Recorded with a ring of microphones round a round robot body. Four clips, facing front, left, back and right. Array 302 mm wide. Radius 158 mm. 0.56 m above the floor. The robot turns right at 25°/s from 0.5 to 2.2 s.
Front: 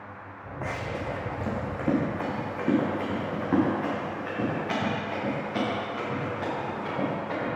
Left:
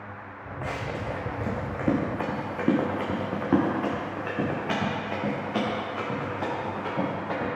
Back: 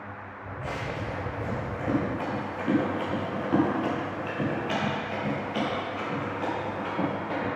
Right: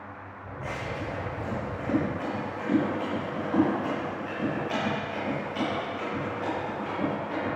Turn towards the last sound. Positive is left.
turn(degrees=80)